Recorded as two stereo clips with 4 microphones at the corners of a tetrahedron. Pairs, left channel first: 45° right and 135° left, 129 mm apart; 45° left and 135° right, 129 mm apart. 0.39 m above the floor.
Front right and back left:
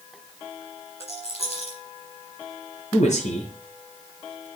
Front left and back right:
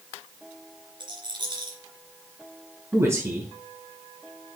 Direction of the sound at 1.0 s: 80° right.